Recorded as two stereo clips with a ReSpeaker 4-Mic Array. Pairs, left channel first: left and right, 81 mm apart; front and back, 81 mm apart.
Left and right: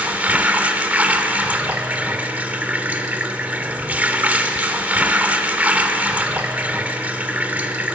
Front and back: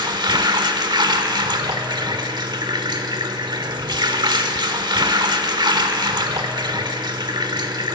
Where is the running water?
160° right, 1.1 m.